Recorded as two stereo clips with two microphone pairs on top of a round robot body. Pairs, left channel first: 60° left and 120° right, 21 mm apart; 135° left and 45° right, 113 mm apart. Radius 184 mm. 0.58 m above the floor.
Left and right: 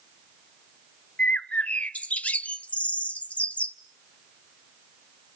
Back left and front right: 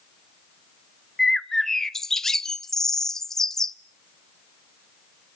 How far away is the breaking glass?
I don't hear breaking glass.